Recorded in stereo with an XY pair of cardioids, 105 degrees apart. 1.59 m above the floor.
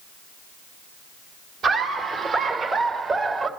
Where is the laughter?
55° right, 2.5 m; by 3.5 s 50° right, 3.5 m.